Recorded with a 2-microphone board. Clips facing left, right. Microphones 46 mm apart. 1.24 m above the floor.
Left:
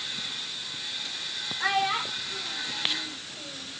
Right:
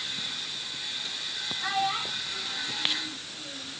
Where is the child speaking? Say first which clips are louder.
Left 3 dB; 65° left (ahead or behind), 2.5 m; by 3.7 s 45° left (ahead or behind), 3.5 m.